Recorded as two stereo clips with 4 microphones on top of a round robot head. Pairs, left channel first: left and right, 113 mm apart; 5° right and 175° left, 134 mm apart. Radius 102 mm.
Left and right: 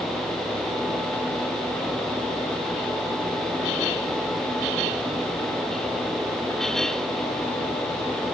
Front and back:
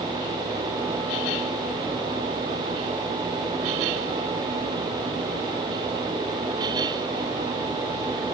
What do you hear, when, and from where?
Only background noise.